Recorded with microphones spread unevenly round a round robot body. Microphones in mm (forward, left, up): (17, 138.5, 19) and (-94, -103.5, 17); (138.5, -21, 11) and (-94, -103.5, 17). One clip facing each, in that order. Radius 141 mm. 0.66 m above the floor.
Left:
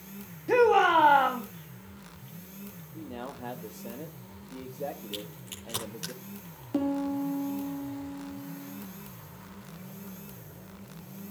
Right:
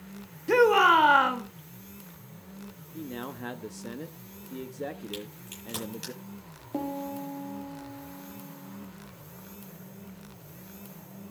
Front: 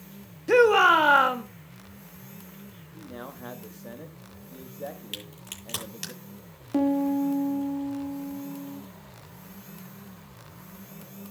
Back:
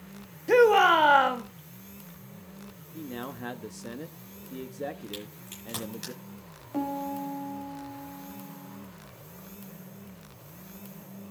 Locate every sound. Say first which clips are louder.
0.5 s a shout: even, front 1 dB; 55° right, 1.2 m
2.9 s a man speaking: right 3 dB, back 4 dB; 150° right, 0.9 m
5.1 s a crack: right 1 dB, back 3 dB; 25° right, 9.5 m
6.7 s a piano: left 6 dB, front 9 dB; straight ahead, 2 m